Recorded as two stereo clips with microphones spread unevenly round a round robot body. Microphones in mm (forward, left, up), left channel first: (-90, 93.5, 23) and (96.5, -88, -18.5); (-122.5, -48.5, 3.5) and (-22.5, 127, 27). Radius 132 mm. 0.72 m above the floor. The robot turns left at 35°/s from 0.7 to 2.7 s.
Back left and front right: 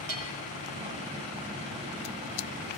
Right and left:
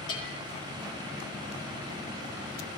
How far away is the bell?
About 7 m.